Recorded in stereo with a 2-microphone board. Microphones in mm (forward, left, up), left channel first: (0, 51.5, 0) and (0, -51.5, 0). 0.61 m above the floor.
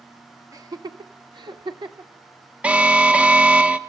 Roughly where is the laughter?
Right.